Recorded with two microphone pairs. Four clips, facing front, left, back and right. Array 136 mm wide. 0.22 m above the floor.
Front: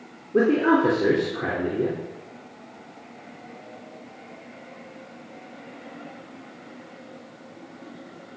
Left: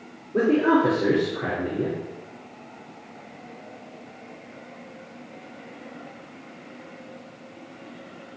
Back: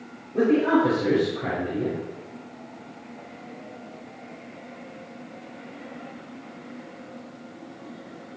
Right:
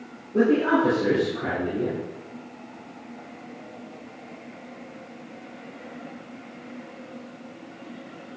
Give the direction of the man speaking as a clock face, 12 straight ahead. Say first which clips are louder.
Left 1 dB, front 1 dB; 12 o'clock.